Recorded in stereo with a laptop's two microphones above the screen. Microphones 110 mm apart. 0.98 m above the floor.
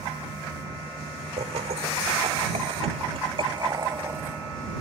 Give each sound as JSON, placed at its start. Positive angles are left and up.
{"t": 1.4, "sound": "laughter", "side_deg": -80}